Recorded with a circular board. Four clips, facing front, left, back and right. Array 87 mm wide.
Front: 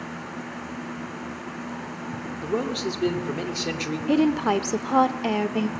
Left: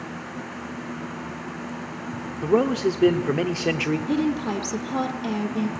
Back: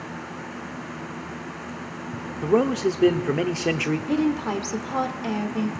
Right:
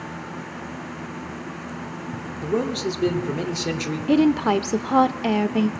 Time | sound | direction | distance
2.4 | a man speaking | 135° left | 1.6 m
4.1 | a woman speaking | 55° right | 1.3 m